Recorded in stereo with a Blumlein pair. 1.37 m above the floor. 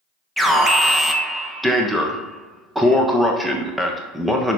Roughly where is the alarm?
Ahead.